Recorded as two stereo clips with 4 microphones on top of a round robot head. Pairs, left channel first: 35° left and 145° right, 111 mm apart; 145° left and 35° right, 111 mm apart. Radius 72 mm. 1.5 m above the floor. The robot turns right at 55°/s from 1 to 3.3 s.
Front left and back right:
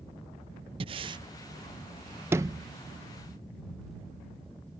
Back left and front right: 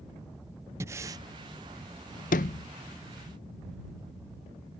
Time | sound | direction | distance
0.8 | breathing | 100° right | ?
2.3 | a sliding door | 145° left | ?